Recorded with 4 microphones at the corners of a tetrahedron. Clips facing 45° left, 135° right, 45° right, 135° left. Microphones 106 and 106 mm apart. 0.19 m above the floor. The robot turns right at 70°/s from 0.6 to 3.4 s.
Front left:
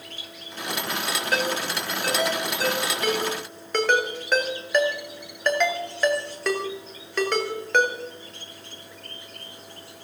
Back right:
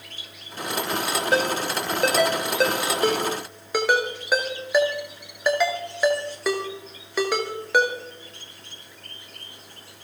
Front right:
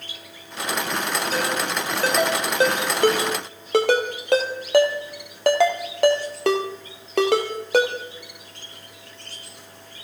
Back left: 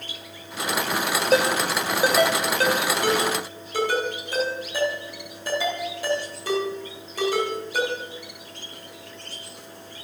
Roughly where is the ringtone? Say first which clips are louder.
Back right 3 dB, back left 8 dB; behind.